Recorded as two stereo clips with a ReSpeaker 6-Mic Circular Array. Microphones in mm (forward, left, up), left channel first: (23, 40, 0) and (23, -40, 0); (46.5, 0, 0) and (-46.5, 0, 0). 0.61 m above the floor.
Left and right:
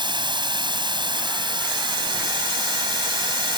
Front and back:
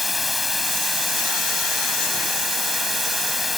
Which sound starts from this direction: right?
Running water, at 0.0 s.